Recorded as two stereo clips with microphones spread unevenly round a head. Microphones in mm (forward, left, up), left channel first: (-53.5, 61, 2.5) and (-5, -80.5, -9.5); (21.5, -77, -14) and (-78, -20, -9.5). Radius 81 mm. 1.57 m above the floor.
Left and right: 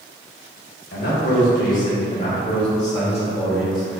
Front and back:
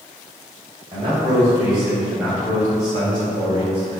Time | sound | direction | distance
0.9 | a man speaking | 85° left | 1.8 m